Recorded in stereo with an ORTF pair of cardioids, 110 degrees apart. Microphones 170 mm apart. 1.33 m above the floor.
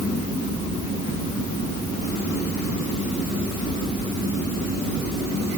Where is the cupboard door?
No cupboard door in this recording.